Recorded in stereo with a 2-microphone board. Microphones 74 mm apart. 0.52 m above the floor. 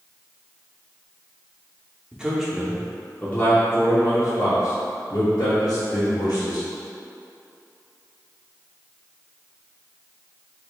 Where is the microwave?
I don't hear a microwave.